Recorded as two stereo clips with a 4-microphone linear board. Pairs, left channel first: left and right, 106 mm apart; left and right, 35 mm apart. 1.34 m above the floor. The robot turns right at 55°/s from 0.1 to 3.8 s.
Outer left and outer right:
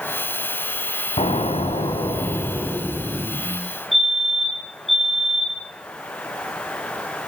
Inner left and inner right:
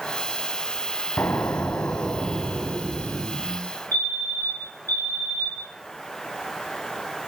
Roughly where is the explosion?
Left.